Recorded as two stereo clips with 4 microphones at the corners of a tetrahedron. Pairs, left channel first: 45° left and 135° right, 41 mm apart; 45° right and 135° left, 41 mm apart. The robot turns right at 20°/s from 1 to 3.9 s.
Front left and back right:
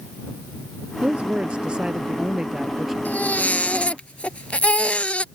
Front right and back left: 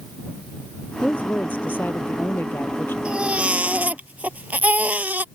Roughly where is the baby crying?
Left.